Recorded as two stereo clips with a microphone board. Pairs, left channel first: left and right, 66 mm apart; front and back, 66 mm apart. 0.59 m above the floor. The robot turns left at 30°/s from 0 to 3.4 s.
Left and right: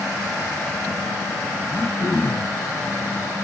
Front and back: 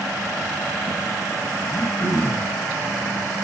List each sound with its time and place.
1.7 s throat clearing: 40° left, 3.5 m; by 2.5 s 15° left, 3.5 m